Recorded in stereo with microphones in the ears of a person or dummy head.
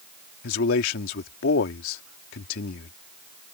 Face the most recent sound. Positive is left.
turn(degrees=75)  # may be behind; listen again after turning